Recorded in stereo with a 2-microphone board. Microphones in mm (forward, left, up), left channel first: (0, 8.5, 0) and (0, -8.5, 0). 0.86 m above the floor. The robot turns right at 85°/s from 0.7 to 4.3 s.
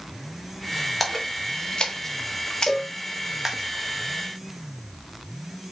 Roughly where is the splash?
Centre.